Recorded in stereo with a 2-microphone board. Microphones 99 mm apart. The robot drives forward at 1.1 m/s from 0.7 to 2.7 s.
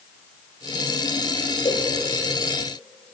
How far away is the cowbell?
About 1.4 m.